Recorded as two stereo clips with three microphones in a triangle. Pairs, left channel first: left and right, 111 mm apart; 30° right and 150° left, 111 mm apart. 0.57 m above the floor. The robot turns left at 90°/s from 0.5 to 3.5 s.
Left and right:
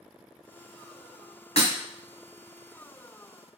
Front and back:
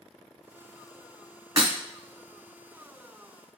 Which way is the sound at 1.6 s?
95° left.